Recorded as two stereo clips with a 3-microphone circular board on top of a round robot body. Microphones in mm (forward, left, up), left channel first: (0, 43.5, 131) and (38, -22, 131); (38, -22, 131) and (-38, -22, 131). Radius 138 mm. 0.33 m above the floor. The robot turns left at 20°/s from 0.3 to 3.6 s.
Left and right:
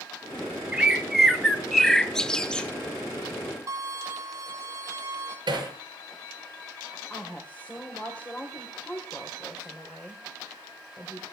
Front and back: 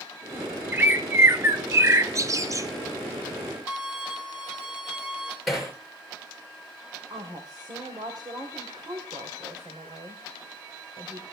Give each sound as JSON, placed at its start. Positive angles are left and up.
{"t": 0.7, "sound": "a bird", "azimuth_deg": -130, "distance_m": 1.4}
{"t": 3.7, "sound": "a violin", "azimuth_deg": -100, "distance_m": 3.0}
{"t": 5.5, "sound": "hammering", "azimuth_deg": -90, "distance_m": 5.5}
{"t": 7.1, "sound": "a woman speaking", "azimuth_deg": -170, "distance_m": 2.5}